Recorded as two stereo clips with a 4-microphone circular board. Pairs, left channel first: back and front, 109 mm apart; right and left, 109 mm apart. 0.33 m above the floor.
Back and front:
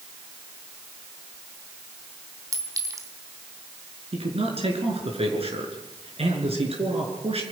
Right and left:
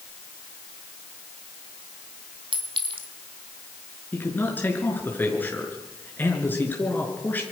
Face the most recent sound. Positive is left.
turn(degrees=-20)